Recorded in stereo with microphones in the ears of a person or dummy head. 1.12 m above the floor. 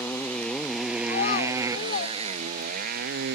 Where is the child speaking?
45° left (ahead or behind).